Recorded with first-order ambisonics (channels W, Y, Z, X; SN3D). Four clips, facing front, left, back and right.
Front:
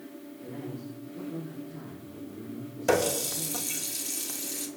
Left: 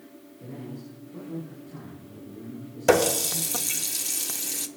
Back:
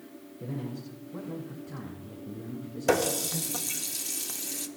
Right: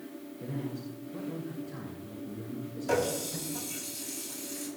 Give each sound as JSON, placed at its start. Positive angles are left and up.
{"t": 0.4, "sound": "a man speaking", "azimuth_deg": -165, "distance_m": 8.0}
{"t": 2.9, "sound": "a running tap", "azimuth_deg": 95, "distance_m": 1.1}